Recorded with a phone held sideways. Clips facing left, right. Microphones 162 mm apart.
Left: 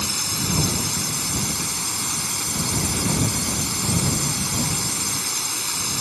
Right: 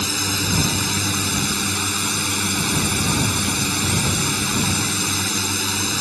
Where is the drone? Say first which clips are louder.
Right 4 dB; 75° right (ahead or behind); by 6.0 s 70° right (ahead or behind).